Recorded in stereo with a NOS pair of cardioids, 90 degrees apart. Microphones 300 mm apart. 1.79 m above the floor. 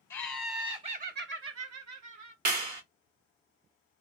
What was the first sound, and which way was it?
Laughter, 15° left.